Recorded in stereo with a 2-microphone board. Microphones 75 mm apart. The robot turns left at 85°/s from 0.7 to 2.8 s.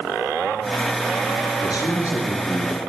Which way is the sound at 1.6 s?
80° left.